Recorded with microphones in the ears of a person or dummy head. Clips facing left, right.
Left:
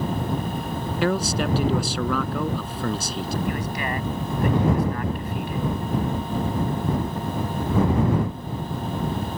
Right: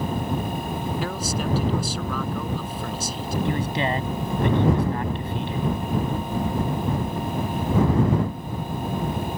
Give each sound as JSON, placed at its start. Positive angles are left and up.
{"t": 1.0, "sound": "a man speaking", "side_deg": 65}
{"t": 3.5, "sound": "a man speaking", "side_deg": -30}